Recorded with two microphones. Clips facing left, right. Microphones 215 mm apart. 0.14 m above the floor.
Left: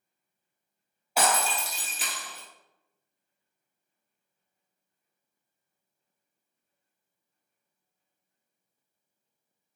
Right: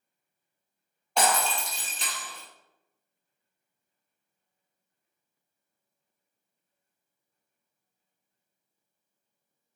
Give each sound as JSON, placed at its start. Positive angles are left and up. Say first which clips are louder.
{"t": 1.2, "sound": "breaking glass", "louder": "right 1 dB", "side_deg": 5, "distance_m": 1.1}